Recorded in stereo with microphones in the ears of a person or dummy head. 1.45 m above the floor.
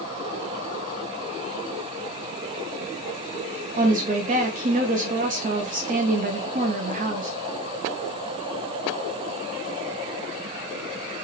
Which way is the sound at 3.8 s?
45° right (ahead or behind).